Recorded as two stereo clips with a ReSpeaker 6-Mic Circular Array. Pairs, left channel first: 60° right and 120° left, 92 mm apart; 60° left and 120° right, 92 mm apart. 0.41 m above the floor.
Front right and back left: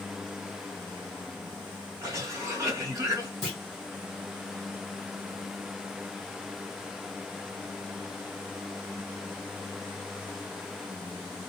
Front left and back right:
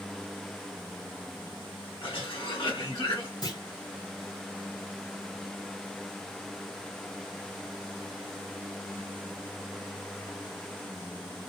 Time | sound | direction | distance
2.0 | a cough | 70° left | 2 m
3.4 | a clunk | 30° left | 2.0 m